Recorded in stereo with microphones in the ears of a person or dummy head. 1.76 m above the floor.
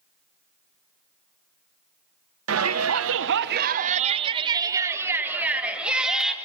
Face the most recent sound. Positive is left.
turn(degrees=0)  # may be behind; listen again after turning